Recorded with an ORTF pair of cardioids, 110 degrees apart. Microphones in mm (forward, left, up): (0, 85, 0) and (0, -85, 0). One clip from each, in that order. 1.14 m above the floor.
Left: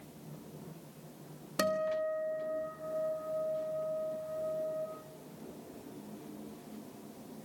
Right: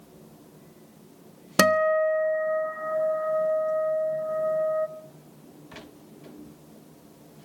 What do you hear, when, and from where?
1.6 s a guitar: 65° right, 1.4 m